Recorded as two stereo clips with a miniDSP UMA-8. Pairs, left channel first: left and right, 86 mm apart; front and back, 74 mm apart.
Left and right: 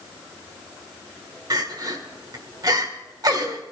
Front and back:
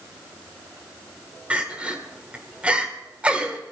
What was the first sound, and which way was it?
Crying, 110° right.